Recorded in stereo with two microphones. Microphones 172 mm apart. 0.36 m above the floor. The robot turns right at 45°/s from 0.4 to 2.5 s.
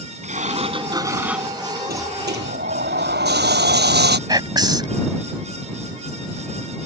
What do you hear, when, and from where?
0.2 s a sliding door: 50° right; by 1.8 s 15° left
1.9 s a sliding door: 65° right (ahead or behind); by 4.2 s 85° right
4.3 s whispering: 25° right (ahead or behind)